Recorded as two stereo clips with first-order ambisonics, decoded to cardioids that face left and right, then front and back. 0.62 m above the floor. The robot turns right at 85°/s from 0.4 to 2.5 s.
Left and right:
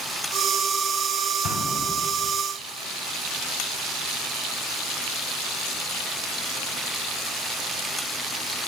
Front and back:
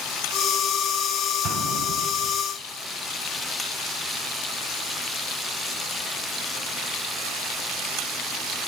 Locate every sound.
1.4 s an explosion: 135° left, 2.5 m; by 2.3 s 150° right, 2.5 m